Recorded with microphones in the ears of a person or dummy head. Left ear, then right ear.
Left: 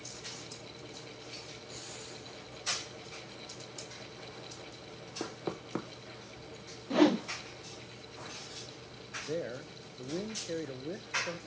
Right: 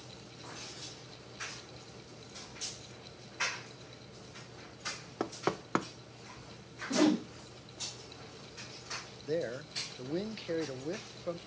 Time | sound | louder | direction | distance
5.2 | knocking | right 5 dB | 50° right (ahead or behind) | 0.5 m
6.9 | a whoosh | left 2 dB | 20° left (ahead or behind) | 0.6 m
9.2 | a man speaking | right 3 dB | 20° right (ahead or behind) | 0.6 m